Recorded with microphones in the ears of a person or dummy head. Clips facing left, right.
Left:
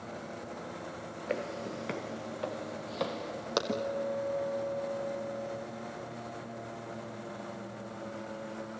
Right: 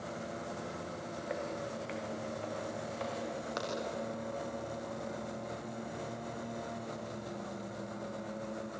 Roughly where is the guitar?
Left.